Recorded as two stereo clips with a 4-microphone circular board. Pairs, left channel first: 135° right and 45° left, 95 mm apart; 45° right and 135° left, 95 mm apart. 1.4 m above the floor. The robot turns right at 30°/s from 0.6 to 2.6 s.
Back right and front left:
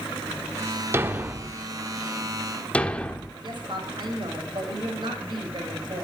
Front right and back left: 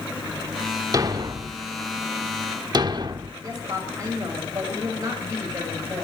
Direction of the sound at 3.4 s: 80° left.